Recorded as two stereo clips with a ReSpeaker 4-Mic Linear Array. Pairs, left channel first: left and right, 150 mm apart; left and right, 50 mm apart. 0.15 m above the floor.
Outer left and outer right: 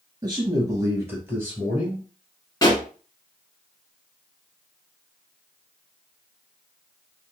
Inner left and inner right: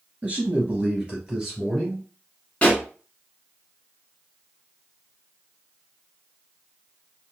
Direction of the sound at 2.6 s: 25° left (ahead or behind).